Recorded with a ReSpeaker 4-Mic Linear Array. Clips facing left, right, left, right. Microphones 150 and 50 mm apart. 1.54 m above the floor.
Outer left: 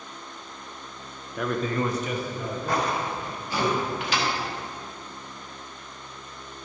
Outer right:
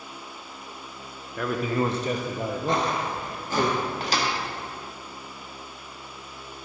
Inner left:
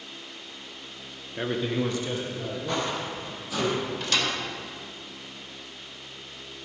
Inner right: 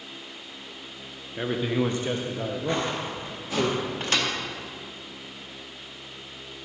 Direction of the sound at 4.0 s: 40° right (ahead or behind).